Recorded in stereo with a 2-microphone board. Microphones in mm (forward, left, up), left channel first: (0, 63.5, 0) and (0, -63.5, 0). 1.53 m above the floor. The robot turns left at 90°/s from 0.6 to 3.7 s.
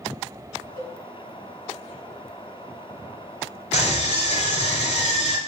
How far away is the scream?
About 0.5 m.